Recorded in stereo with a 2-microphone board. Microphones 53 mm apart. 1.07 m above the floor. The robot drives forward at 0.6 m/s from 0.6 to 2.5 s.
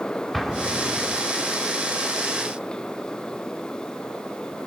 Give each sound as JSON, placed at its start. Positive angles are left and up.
{"t": 0.3, "sound": "an explosion", "side_deg": 0, "distance_m": 1.3}